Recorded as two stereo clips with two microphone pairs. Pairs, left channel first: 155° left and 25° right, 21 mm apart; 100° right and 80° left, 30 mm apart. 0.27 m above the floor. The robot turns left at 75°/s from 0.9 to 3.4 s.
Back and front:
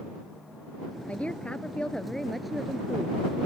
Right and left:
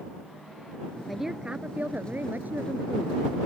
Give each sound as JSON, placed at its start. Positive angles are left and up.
{"t": 1.1, "sound": "a woman speaking", "azimuth_deg": 170}